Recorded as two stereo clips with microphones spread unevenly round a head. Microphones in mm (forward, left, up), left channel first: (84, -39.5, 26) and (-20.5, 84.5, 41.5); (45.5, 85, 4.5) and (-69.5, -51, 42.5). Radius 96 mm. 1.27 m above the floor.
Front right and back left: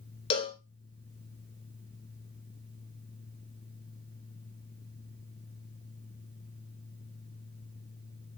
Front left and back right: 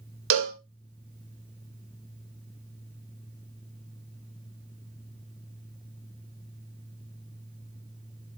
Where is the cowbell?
110° right, 0.5 m.